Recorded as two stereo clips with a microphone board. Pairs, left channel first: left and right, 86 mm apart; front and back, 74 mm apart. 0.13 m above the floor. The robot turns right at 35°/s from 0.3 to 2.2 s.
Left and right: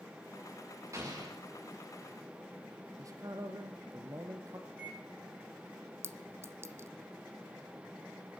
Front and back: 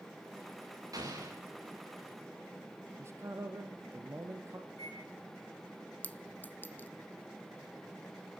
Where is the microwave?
20° right, 7 m.